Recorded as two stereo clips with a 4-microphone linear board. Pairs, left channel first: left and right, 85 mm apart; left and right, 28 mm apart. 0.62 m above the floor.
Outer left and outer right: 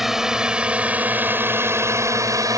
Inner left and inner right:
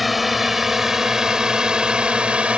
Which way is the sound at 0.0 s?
5° right (ahead or behind).